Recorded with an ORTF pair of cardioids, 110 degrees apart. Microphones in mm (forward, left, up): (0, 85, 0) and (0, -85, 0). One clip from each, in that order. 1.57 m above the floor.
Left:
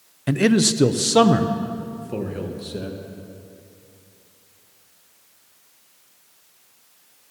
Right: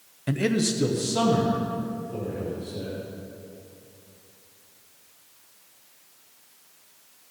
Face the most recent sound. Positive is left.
turn(degrees=70)